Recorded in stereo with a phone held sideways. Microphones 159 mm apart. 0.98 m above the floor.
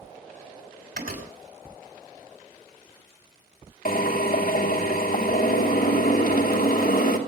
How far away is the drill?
About 2.5 m.